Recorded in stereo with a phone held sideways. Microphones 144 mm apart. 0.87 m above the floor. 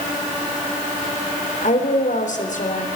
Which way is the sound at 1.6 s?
60° left (ahead or behind).